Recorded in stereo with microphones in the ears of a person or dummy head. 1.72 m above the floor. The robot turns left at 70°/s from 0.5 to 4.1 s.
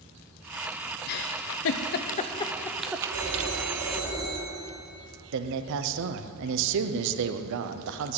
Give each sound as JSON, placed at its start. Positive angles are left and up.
{"t": 1.1, "sound": "a giggle", "side_deg": 50, "distance_m": 0.8}
{"t": 3.1, "sound": "a phone ringing", "azimuth_deg": -95, "distance_m": 4.0}
{"t": 5.3, "sound": "a man speaking", "side_deg": -70, "distance_m": 1.0}